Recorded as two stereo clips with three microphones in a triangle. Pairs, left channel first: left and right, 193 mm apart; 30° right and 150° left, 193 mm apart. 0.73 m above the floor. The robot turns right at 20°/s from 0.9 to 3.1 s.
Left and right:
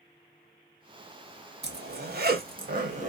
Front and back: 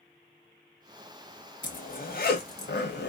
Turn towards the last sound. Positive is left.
turn(degrees=-45)